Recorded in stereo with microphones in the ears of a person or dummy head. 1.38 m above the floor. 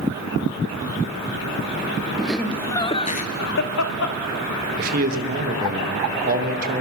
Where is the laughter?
5° right (ahead or behind), 1.0 m; by 4.2 s 80° left, 1.0 m.